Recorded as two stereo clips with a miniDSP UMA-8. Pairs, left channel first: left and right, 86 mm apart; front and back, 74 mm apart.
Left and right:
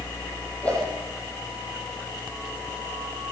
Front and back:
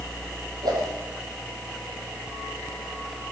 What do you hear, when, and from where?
0.6 s a whoosh: 165° left, 4 m